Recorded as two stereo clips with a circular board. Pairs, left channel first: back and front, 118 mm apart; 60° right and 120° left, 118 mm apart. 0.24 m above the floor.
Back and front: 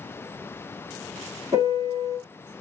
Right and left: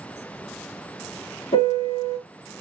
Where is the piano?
55° right, 2 m.